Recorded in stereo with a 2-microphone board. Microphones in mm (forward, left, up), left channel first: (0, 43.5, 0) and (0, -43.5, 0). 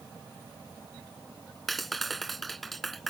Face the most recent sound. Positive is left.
turn(degrees=0)  # may be behind; listen again after turning